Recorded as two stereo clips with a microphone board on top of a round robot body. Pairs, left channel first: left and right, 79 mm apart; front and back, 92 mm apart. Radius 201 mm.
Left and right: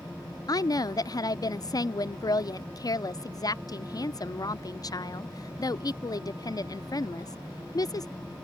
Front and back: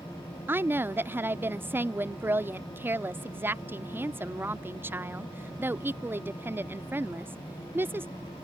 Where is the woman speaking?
115° left.